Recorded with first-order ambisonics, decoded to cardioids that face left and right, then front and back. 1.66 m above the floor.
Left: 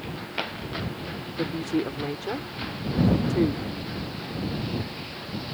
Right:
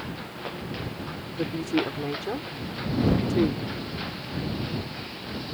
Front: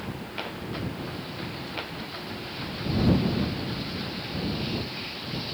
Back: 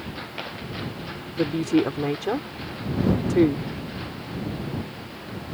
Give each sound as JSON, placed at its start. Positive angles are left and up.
{"t": 1.4, "sound": "a woman speaking", "azimuth_deg": 180}